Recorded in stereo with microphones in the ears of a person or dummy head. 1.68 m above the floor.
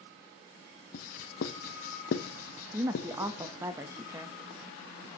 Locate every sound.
0.9 s writing: 55° left (ahead or behind), 0.8 m
2.7 s a woman speaking: 10° right (ahead or behind), 0.6 m